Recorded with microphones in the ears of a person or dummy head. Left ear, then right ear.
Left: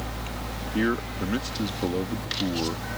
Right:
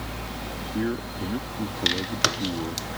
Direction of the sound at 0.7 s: 80° left.